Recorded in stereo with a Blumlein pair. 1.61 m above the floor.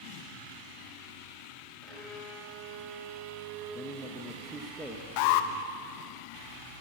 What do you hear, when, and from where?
1.8 s a violin: 15° right, 4.5 m
3.8 s a man speaking: straight ahead, 1.0 m
5.2 s an alarm: 45° left, 0.6 m